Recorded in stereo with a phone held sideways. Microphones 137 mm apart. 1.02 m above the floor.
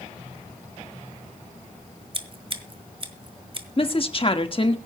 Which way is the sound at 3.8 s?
40° left (ahead or behind).